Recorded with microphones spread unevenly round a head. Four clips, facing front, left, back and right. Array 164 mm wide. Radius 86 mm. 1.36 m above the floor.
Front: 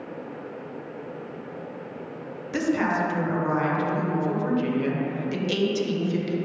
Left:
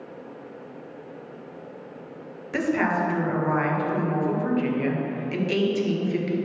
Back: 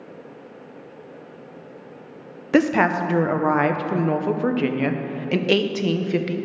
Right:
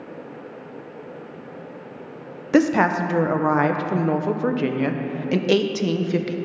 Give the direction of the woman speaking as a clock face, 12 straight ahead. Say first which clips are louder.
Right 6 dB, back 6 dB; 4 o'clock.